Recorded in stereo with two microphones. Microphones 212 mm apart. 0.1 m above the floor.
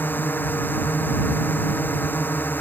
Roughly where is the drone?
Centre.